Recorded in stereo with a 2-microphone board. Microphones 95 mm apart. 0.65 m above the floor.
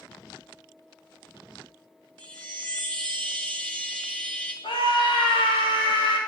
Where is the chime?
10° left (ahead or behind), 4 m.